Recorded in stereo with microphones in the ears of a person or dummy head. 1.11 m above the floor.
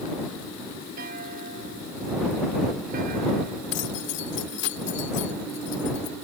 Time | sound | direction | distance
1.0 | a clunk | 50° right (ahead or behind) | ?
3.7 | keys jangling | 65° left (ahead or behind) | ?